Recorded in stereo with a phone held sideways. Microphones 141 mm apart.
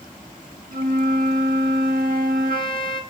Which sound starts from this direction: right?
A flute, at 0.7 s.